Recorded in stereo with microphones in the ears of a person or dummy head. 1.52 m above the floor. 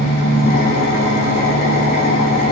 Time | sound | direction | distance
0.0 | an engine running | 45° left (ahead or behind) | 2.5 m